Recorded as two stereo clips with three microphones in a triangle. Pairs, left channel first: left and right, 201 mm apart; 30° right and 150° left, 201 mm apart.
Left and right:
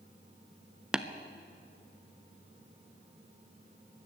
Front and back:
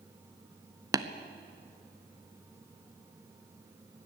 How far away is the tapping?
About 0.6 m.